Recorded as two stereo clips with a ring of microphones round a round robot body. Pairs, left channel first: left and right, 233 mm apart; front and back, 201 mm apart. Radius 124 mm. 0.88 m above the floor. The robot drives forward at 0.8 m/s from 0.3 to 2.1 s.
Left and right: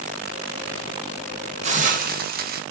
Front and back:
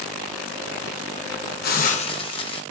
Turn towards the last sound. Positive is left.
turn(degrees=-55)